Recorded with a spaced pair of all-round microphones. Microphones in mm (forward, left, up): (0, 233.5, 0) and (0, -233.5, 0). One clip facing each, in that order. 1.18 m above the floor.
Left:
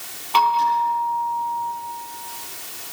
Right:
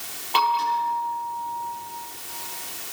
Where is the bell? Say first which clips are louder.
Left 4 dB; 25° left (ahead or behind), 9.5 m.